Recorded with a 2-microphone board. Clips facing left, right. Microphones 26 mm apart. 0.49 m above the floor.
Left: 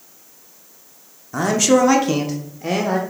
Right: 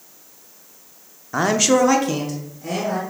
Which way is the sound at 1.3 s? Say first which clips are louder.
Left 1 dB; 25° right (ahead or behind).